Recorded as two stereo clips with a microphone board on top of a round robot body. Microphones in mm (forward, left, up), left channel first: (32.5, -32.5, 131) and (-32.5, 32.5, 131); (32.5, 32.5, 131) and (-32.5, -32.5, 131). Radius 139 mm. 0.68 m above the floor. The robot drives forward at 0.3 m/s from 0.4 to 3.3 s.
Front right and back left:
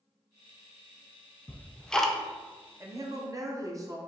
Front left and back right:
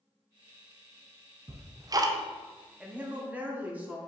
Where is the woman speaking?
150° left, 0.8 m; by 4.0 s 160° left, 0.9 m.